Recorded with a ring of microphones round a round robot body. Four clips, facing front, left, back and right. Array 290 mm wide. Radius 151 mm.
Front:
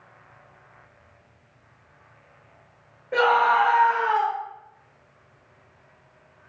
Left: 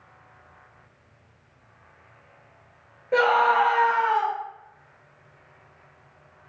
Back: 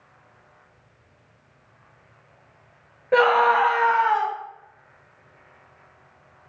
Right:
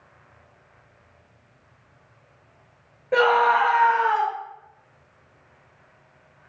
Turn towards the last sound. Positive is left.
turn(degrees=-160)